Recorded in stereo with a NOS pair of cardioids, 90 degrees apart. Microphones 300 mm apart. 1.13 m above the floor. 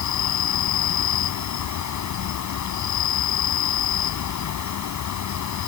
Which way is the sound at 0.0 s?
70° left.